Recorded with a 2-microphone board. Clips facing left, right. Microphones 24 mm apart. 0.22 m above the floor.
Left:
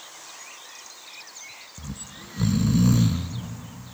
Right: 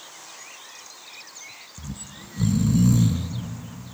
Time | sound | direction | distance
1.8 | snoring | 25° left (ahead or behind) | 1.1 m